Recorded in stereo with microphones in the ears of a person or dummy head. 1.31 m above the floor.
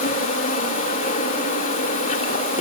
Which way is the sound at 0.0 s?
50° left (ahead or behind).